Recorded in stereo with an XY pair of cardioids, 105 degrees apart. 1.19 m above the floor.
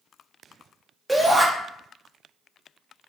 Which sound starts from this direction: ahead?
A shout, at 1.1 s.